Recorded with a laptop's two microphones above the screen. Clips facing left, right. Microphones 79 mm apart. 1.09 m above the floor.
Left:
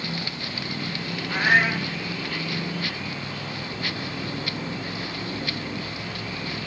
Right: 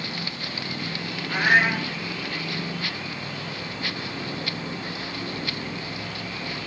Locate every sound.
1.3 s a cat meowing: centre (ahead or behind), 5.5 m